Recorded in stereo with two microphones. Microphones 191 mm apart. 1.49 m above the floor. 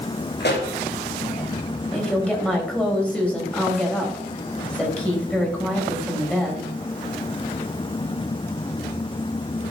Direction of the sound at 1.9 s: 5° left (ahead or behind).